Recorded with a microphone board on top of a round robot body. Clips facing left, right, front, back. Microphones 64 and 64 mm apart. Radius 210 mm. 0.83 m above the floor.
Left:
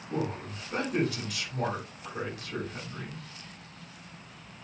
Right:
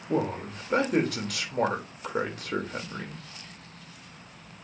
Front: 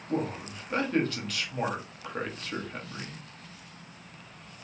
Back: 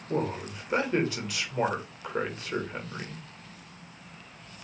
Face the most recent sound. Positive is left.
turn(degrees=-105)